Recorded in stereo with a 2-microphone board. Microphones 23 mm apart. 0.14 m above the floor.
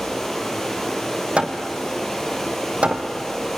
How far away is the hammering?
About 1.9 m.